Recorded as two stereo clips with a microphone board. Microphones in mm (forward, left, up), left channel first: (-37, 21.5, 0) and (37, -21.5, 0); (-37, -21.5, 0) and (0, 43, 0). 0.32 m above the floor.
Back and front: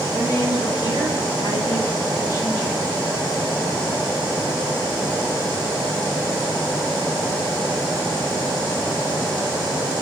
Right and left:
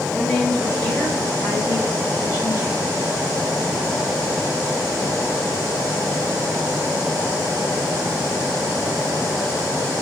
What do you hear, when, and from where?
0.1 s a woman speaking: 165° left, 2.5 m; by 2.9 s 145° right, 1.8 m